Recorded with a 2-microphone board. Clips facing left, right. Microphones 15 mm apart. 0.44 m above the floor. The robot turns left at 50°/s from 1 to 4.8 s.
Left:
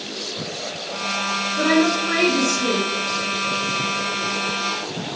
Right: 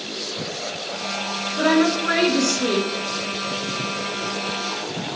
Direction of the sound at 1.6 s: 20° right.